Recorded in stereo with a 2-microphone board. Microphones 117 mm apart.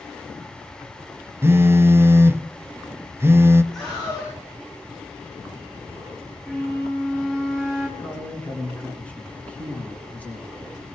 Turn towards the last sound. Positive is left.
turn(degrees=15)  # may be behind; listen again after turning